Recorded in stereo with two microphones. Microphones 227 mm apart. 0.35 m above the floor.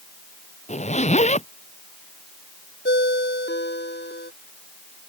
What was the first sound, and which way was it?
A zipper, 30° left (ahead or behind).